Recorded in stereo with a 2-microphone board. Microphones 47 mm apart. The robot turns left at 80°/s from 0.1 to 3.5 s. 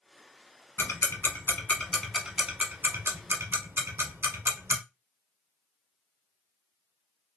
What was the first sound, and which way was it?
Ticking, 65° left (ahead or behind).